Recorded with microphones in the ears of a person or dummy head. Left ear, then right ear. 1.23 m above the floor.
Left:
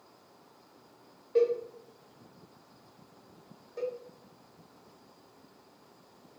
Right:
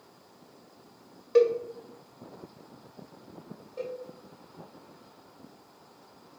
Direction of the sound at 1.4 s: 40° right (ahead or behind).